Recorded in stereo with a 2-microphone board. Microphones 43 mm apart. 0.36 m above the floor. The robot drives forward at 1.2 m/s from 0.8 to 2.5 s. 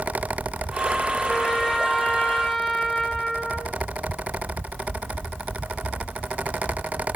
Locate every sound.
1.3 s a trumpet: 5° left (ahead or behind), 3.5 m